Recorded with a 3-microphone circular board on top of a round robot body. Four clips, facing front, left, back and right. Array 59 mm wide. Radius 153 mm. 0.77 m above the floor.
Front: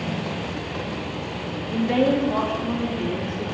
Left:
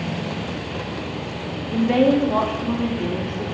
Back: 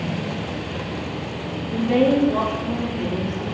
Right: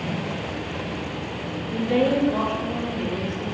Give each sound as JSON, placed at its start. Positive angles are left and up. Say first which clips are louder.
{"t": 1.7, "sound": "a woman speaking", "louder": "left 4 dB, back 2 dB", "azimuth_deg": 55, "distance_m": 1.6}